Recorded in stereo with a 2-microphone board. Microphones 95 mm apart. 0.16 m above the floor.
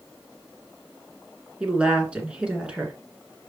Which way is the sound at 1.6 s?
10° right (ahead or behind).